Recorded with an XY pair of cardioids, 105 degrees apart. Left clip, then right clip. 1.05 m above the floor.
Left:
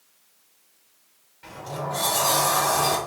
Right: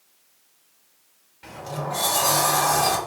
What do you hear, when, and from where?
1.4 s a sliding door: 20° right, 0.8 m